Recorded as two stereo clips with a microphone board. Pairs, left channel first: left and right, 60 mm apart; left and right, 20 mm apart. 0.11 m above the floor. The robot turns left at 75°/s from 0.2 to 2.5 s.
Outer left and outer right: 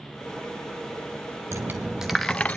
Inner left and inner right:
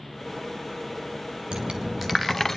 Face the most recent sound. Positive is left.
turn(degrees=155)